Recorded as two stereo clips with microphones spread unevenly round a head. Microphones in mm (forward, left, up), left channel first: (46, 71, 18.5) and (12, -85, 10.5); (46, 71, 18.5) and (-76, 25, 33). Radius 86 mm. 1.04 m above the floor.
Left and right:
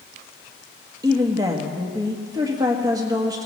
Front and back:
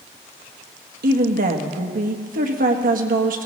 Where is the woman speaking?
170° right, 1.3 m.